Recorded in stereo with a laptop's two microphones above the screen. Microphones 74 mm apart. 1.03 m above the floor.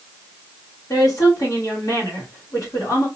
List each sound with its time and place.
0.9 s a woman speaking: 50° left (ahead or behind), 1.4 m